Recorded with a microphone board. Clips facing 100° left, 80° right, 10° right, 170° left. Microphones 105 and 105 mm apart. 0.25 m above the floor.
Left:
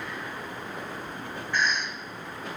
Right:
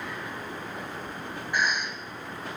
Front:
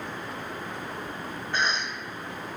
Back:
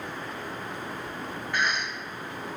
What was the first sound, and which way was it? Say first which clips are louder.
A cough: even, even; 15° right.